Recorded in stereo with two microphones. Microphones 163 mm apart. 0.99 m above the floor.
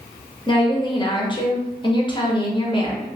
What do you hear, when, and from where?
0.5 s a woman speaking: 30° left (ahead or behind), 0.8 m